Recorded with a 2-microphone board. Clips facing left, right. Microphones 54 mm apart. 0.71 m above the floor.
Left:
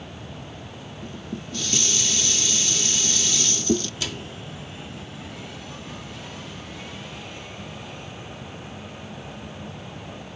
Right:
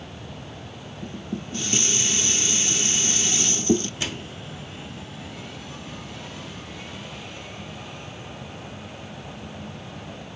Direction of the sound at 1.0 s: 30° right (ahead or behind).